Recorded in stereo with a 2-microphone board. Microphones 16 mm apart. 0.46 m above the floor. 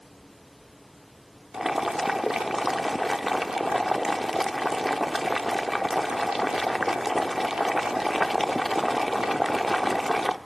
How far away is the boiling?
About 0.6 m.